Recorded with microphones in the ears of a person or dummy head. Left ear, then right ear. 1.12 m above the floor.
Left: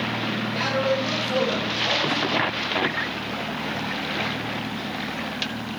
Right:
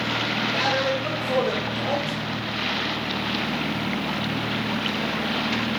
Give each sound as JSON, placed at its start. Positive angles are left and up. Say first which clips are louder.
{"t": 0.5, "sound": "a man speaking", "louder": "left 1 dB", "side_deg": -35, "distance_m": 1.2}